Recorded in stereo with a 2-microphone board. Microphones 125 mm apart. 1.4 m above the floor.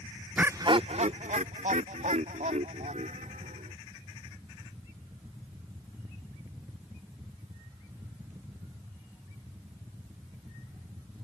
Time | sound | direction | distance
0.4 | laughter | 10° right (ahead or behind) | ?